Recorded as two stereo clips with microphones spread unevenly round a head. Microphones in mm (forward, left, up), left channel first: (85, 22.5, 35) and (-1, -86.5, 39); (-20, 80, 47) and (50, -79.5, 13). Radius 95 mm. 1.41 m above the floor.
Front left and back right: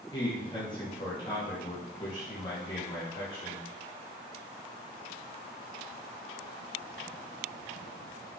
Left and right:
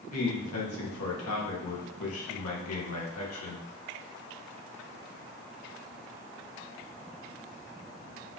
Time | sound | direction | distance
0.1 | a man speaking | 120° left | 2.5 m